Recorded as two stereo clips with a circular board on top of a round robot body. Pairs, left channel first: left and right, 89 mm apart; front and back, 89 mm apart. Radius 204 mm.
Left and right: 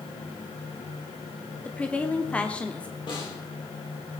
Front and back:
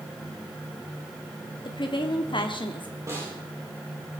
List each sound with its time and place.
1.6 s a woman speaking: 15° left, 1.5 m
3.1 s a snare drum: 120° left, 7 m